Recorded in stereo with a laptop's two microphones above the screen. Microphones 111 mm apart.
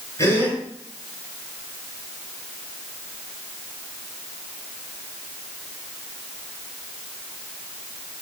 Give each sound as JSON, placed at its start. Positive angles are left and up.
{"t": 0.2, "sound": "a gasp", "side_deg": 25, "distance_m": 6.0}